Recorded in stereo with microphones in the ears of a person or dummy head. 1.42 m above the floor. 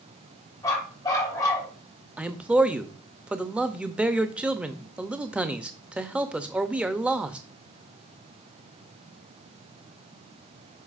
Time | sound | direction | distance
0.6 | a dog barking | 25° left (ahead or behind) | 3.5 m
2.2 | a man speaking | 10° right (ahead or behind) | 0.6 m